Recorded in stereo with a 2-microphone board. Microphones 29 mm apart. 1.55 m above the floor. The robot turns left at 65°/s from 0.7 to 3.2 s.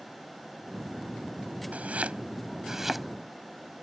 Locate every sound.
1.7 s chopping: 60° right (ahead or behind); by 3.0 s centre (ahead or behind)